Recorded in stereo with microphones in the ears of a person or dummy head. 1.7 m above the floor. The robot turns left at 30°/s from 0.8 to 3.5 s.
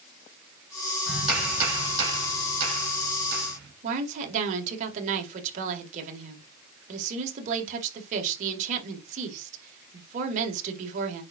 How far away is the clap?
About 5 m.